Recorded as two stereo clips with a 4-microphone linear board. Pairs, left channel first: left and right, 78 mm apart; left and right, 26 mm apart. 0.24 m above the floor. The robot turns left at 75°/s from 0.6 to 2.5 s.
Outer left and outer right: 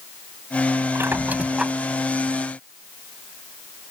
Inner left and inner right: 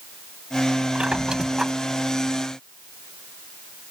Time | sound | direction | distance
0.9 | a squeak | 115° right | ?